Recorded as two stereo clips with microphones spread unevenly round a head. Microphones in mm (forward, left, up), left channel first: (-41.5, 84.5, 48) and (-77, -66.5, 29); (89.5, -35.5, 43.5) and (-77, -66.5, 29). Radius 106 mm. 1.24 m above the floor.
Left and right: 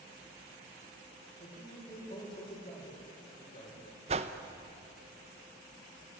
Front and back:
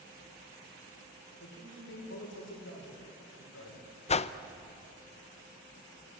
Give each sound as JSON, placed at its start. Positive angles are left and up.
{"t": 1.4, "sound": "a man speaking", "azimuth_deg": 25, "distance_m": 5.0}
{"t": 4.1, "sound": "a whoosh", "azimuth_deg": -40, "distance_m": 0.7}